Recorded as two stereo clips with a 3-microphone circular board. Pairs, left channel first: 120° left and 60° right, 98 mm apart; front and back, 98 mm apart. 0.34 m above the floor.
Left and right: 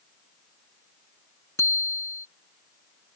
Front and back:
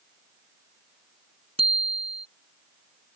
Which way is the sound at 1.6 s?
Straight behind.